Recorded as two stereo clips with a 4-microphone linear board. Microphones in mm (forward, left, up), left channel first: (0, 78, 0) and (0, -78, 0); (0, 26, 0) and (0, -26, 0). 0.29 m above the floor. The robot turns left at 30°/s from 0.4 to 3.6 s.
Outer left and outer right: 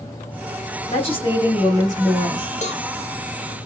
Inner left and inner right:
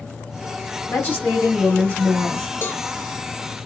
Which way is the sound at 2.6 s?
50° left (ahead or behind).